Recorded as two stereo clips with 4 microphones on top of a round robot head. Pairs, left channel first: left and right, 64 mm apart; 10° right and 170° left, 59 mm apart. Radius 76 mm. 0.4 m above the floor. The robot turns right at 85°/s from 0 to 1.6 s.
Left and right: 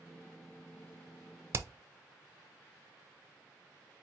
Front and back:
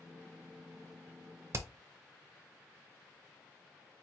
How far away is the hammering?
About 0.5 m.